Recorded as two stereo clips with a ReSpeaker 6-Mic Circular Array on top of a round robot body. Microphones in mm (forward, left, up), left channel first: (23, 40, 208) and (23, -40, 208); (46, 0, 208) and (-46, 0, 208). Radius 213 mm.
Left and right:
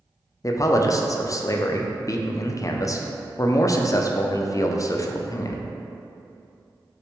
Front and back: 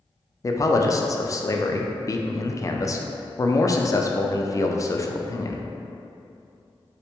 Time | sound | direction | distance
0.4 | a man speaking | 50° left | 0.5 m